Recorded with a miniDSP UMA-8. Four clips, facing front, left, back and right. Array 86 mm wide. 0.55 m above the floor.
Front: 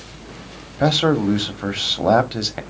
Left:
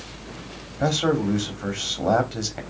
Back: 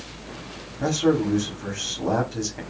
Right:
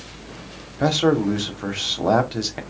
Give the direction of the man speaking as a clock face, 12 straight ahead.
1 o'clock.